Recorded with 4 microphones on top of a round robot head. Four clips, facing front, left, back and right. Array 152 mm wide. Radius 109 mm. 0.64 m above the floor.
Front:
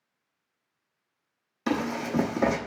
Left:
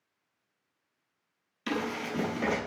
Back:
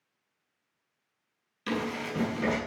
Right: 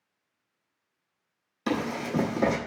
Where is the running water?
I don't hear running water.